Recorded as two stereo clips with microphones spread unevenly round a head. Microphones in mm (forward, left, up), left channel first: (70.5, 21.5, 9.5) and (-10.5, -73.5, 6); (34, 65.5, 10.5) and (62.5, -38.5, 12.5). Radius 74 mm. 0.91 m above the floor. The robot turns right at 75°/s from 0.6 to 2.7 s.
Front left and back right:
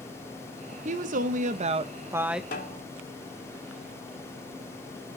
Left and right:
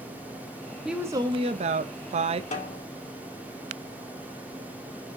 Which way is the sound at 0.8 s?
160° right.